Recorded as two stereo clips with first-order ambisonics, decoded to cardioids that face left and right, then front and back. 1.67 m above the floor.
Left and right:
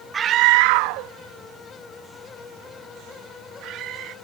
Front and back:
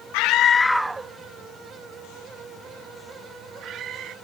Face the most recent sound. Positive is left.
turn(degrees=-130)